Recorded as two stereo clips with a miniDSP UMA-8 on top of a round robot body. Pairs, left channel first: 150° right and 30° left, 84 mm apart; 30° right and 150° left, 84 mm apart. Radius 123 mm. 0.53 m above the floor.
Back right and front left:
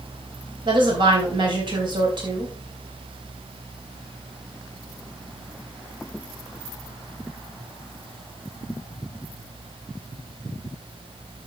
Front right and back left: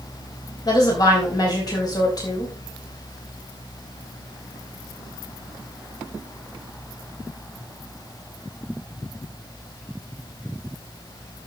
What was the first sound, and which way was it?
A woman speaking, 10° left.